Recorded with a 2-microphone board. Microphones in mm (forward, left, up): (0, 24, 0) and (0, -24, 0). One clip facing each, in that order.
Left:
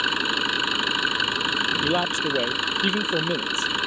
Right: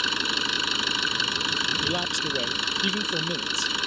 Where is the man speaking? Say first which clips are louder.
Left 4 dB; 25° left (ahead or behind).